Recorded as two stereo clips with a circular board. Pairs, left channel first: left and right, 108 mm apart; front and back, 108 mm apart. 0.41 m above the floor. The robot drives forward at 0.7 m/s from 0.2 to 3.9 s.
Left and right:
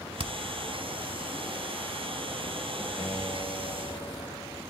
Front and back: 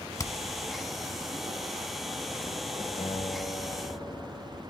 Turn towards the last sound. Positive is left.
turn(degrees=35)